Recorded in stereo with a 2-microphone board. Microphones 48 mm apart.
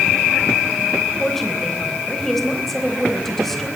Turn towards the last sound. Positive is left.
turn(degrees=5)  # may be behind; listen again after turning